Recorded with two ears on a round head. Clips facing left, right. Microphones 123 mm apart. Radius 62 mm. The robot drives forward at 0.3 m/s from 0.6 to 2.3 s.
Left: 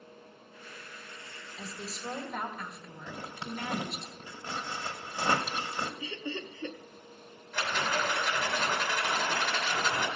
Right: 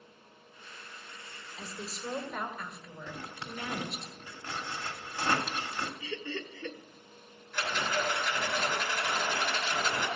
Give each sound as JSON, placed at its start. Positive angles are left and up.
{"t": 1.6, "sound": "a woman speaking", "side_deg": 0, "distance_m": 1.7}
{"t": 3.1, "sound": "a zipper", "side_deg": 15, "distance_m": 1.0}
{"t": 6.0, "sound": "laughter", "side_deg": 15, "distance_m": 0.8}
{"t": 7.5, "sound": "a rattle", "side_deg": 55, "distance_m": 2.5}